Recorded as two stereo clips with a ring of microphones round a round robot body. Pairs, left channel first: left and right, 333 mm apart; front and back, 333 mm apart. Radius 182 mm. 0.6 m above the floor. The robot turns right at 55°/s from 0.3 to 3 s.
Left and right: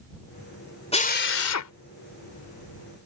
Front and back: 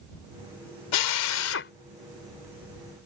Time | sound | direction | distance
0.9 | a drill | 20° left | ?